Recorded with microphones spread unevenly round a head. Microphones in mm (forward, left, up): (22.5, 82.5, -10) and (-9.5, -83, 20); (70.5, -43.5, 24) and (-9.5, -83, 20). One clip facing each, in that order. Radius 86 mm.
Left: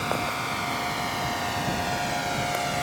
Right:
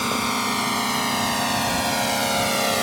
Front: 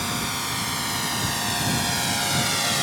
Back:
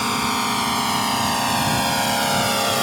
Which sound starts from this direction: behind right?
A drone, at 0.0 s.